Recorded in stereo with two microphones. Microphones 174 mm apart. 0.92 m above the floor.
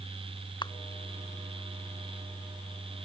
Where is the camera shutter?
25° left (ahead or behind).